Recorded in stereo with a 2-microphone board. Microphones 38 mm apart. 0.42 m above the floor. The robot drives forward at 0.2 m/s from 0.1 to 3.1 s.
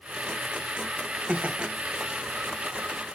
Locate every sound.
1.3 s laughter: 35° right (ahead or behind), 1.1 m